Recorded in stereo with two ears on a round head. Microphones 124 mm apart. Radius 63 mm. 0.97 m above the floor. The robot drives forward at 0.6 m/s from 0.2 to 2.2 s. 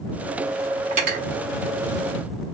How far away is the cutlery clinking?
About 1.0 m.